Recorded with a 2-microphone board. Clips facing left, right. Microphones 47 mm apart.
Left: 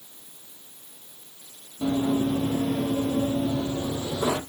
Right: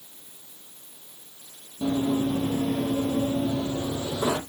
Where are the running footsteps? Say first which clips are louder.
Left 1 dB; 10° left (ahead or behind), 1.4 m; by 4.4 s 20° right (ahead or behind), 1.8 m.